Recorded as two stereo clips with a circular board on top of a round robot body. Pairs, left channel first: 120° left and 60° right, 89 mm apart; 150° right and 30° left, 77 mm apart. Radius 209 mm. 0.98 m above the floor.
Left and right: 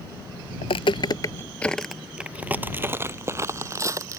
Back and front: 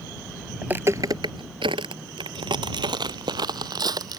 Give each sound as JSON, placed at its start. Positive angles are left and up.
{"t": 0.6, "sound": "footsteps", "azimuth_deg": 105}